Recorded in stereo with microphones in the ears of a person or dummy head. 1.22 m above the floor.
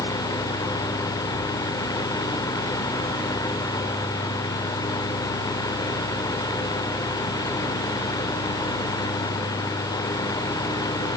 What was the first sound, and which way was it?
Only background noise.